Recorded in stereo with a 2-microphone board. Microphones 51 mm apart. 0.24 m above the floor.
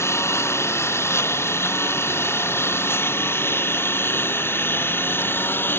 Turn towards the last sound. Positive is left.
turn(degrees=45)  # may be behind; listen again after turning